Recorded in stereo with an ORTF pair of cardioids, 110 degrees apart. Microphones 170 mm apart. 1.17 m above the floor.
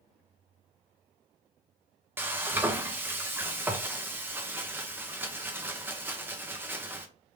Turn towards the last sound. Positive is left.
turn(degrees=-15)